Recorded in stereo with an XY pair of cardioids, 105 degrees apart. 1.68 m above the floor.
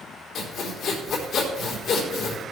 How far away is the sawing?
About 4 m.